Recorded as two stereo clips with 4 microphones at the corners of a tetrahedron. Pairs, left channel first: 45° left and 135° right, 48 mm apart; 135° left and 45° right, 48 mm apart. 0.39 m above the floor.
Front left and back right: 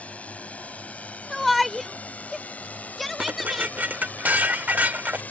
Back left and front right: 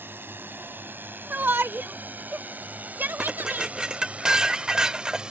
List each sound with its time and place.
0.0 s a drone: 15° right; by 5.3 s 15° left
1.3 s a shout: 45° right
3.2 s dishes clattering: 115° right